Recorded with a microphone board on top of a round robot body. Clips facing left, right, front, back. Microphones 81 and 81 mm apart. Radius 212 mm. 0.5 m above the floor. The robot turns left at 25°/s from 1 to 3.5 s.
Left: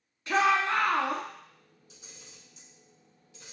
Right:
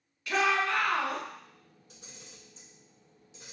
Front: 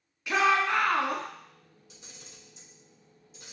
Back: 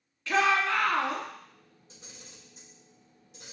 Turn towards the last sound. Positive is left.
turn(degrees=-165)